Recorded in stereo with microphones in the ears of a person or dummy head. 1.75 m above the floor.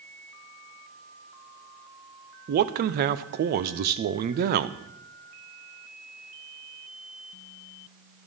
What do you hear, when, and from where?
2.5 s a man speaking: 50° right (ahead or behind), 0.7 m